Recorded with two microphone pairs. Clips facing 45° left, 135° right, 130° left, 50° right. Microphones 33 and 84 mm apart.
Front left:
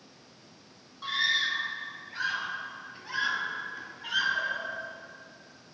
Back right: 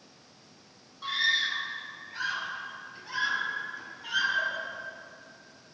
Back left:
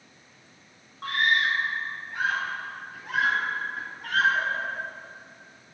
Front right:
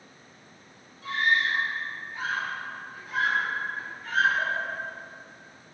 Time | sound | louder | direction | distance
1.0 | a scream | even, back left 1 dB | 130° left | 3.5 m